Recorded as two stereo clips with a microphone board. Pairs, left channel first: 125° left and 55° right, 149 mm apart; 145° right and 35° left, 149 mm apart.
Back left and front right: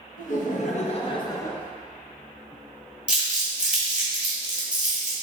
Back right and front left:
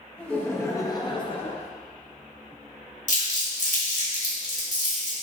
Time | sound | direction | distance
0.2 | laughter | 135° left | 0.9 m
3.1 | crumpling | 135° right | 1.2 m